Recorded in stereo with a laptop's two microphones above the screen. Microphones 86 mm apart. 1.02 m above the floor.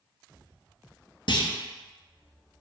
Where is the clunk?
65° left (ahead or behind), 0.5 m.